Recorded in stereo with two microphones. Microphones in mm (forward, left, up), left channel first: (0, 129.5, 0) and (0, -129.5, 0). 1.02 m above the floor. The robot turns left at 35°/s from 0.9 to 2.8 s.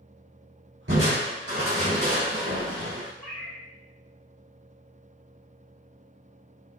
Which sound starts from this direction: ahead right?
Crushing, at 0.9 s.